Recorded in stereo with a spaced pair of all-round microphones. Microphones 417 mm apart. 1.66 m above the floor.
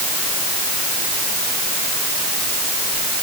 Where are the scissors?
I don't hear scissors.